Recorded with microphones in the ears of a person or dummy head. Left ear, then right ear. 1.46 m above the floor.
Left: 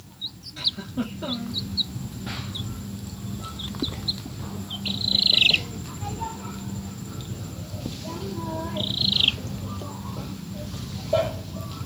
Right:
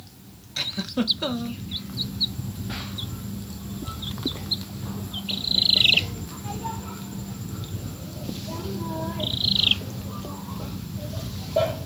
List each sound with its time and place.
0.6 s a giggle: 40° right (ahead or behind), 0.6 m